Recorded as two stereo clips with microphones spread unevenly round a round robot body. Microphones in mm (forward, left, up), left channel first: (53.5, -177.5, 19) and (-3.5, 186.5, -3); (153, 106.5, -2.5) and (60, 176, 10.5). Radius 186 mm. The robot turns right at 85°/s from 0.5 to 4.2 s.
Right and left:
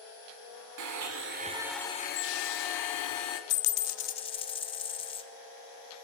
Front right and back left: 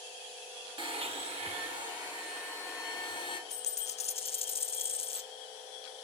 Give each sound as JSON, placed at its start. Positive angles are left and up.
{"t": 0.8, "sound": "a blender", "azimuth_deg": 105, "distance_m": 1.1}
{"t": 3.5, "sound": "a dropped coin", "azimuth_deg": -65, "distance_m": 0.6}